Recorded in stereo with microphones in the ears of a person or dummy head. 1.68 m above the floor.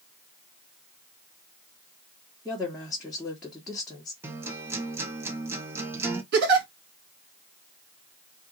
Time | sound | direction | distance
2.5 | a woman speaking | centre (ahead or behind) | 1.6 m
4.2 | a guitar | 15° right (ahead or behind) | 1.1 m
6.3 | a giggle | 60° right (ahead or behind) | 1.7 m